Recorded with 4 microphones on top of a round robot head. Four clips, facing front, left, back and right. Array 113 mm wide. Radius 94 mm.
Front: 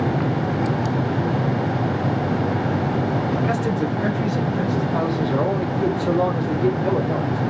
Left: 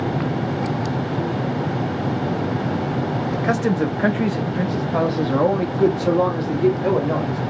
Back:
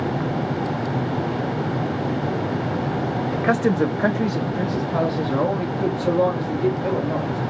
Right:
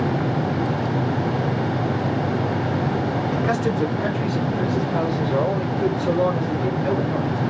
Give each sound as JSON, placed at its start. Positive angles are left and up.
{"t": 3.3, "sound": "a man speaking", "azimuth_deg": 165, "distance_m": 0.9}